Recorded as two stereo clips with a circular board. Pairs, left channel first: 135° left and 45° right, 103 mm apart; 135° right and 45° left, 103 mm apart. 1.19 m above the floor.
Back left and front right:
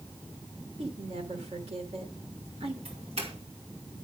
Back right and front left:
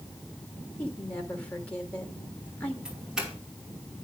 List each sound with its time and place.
0.8 s a woman speaking: 60° right, 3 m
2.9 s a doorbell: 40° right, 5.5 m